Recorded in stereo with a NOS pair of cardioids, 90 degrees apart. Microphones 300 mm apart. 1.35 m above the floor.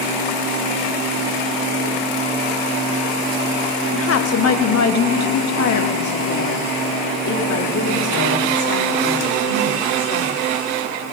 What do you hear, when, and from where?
3.9 s a woman speaking: 45° left, 1.3 m; by 10.4 s 75° left, 4.5 m